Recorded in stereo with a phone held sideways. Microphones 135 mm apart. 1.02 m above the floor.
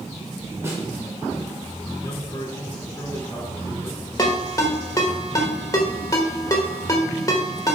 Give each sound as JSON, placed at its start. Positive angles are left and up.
{"t": 0.6, "sound": "a snare drum", "side_deg": -20, "distance_m": 2.0}
{"t": 2.0, "sound": "a man speaking", "side_deg": 30, "distance_m": 2.5}
{"t": 4.2, "sound": "a ringtone", "side_deg": 25, "distance_m": 1.2}